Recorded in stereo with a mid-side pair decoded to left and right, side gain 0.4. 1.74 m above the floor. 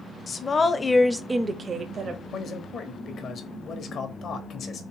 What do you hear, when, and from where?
0.3 s a woman speaking: 45° left, 0.9 m; by 2.2 s 70° right, 0.9 m
2.3 s a man speaking: 60° left, 1.1 m